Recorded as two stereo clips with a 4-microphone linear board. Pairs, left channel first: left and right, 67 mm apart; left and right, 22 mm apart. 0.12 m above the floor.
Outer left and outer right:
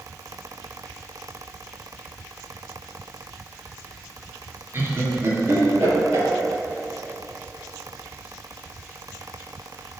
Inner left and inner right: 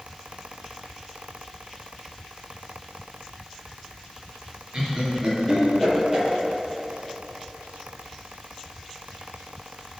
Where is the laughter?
40° right (ahead or behind), 2.0 m; by 6.3 s 50° right (ahead or behind), 2.5 m.